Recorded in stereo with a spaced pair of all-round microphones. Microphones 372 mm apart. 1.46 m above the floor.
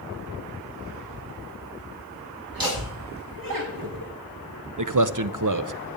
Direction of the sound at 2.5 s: 65° right (ahead or behind).